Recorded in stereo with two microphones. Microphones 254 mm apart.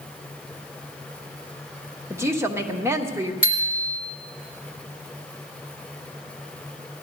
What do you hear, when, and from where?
2.1 s a woman speaking: 10° right (ahead or behind), 1.4 m
3.4 s a bicycle bell: 20° left (ahead or behind), 2.5 m